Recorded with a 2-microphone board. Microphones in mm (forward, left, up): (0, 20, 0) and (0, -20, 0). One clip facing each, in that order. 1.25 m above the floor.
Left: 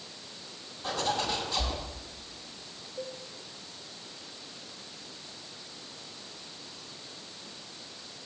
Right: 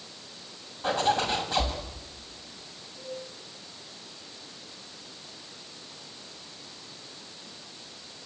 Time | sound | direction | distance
0.8 | a zipper | 40° right (ahead or behind) | 6.5 m
3.0 | a cowbell | 55° left (ahead or behind) | 9.5 m